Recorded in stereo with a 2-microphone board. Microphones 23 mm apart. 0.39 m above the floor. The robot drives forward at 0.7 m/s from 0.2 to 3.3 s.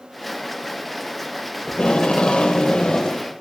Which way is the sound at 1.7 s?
50° left (ahead or behind).